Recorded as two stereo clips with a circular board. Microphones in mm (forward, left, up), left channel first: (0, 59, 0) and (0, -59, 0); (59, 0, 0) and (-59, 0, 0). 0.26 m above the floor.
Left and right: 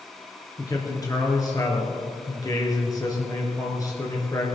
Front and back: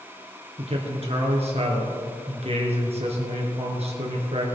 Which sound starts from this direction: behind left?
A man speaking, at 0.6 s.